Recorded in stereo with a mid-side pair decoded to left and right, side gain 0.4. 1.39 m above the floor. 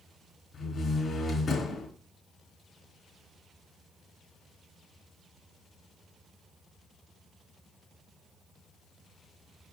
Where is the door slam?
45° left, 4 m.